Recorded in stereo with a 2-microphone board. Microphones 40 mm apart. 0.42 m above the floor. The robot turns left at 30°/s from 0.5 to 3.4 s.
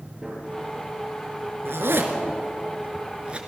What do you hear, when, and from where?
0.2 s a gunshot: 15° right (ahead or behind), 8 m
1.6 s a zipper: 75° right (ahead or behind), 3 m; by 3.4 s 25° right (ahead or behind), 3 m